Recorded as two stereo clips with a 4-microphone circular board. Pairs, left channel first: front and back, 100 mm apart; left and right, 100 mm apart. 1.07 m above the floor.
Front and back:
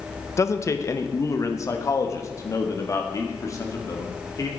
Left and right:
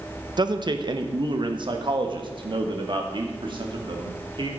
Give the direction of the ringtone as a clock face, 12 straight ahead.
No ringtone in this recording.